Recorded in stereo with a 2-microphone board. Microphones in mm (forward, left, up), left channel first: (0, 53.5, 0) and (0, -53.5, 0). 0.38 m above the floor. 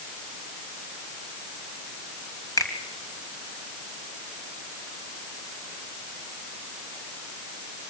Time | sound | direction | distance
2.6 | a finger snap | 35° left (ahead or behind) | 2.5 m